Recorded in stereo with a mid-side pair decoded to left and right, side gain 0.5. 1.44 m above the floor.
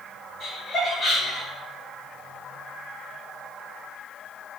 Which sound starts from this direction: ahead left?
Laughter, at 0.4 s.